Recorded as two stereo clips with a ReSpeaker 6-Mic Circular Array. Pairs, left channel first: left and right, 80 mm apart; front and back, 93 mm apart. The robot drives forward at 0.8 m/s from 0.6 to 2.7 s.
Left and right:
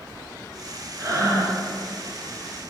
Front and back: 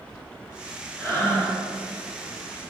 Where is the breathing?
55° right, 3.5 m; by 1.6 s 60° right, 3.5 m.